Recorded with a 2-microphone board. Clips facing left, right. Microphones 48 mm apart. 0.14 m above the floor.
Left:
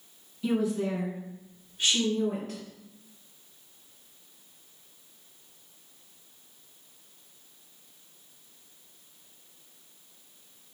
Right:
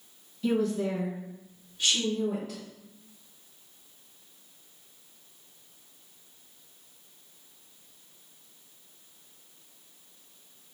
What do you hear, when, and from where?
0.4 s a woman speaking: 15° left (ahead or behind), 1.7 m; by 2.6 s 50° left (ahead or behind), 2.5 m